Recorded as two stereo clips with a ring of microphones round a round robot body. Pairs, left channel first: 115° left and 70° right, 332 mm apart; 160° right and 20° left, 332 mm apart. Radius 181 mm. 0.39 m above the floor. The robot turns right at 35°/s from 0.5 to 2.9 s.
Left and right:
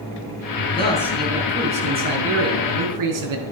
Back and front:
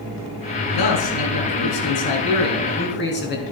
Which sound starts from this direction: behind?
A man speaking, at 0.7 s.